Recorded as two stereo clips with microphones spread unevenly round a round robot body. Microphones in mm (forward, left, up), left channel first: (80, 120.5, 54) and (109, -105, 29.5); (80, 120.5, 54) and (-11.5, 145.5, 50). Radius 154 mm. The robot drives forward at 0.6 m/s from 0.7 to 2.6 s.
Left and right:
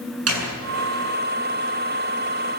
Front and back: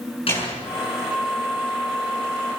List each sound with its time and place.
0.3 s a door slam: 70° right, 8 m; by 2.5 s 80° right, 7.5 m